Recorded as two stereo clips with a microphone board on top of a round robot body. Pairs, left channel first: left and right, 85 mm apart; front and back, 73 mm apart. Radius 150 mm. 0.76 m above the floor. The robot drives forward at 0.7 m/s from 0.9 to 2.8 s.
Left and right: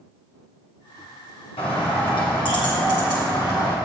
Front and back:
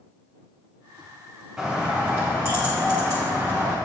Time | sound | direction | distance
1.6 | a bird | 100° left | 1.5 m